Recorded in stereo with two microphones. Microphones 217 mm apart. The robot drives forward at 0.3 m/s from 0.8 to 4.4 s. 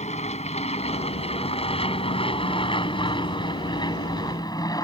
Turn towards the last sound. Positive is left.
turn(degrees=20)  # may be behind; listen again after turning